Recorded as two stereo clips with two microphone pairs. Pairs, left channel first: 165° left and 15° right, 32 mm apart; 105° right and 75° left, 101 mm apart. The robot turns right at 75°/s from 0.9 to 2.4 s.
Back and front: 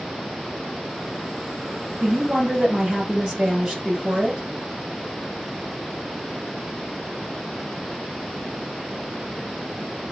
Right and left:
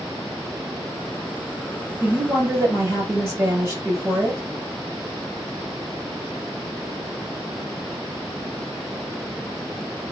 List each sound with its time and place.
2.0 s a woman speaking: 20° left, 1.2 m; by 4.4 s 50° left, 1.2 m